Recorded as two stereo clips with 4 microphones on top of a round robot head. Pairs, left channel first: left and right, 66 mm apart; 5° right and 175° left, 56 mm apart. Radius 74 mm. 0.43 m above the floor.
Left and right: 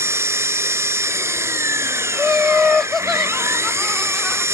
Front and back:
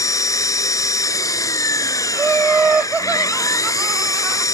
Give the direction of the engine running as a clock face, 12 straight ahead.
1 o'clock.